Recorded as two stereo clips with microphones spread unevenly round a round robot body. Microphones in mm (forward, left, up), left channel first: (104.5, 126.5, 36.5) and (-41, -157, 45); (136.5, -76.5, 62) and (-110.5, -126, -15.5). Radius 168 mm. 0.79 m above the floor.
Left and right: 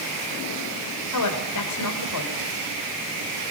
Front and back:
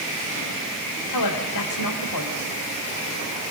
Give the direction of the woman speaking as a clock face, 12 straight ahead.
11 o'clock.